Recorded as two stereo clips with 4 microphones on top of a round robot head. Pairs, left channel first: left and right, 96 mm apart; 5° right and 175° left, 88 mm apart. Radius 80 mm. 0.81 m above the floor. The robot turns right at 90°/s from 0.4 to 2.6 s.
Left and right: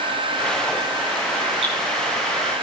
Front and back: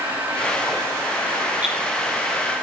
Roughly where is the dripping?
Right.